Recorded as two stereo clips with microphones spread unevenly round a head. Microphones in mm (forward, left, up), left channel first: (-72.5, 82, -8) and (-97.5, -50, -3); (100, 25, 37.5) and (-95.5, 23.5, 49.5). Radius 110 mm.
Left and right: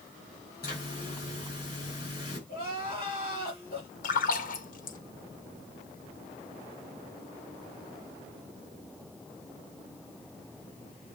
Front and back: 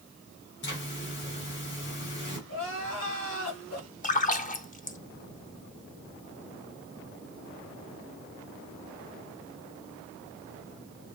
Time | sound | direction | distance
0.6 | a zipper | 30° left | 4 m
2.5 | crying | 20° left | 4.5 m
4.0 | a splash | 45° left | 0.9 m